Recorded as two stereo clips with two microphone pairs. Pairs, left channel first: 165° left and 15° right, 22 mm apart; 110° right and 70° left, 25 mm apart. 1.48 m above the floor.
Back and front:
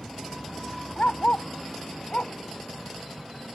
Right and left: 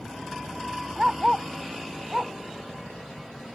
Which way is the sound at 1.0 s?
135° left.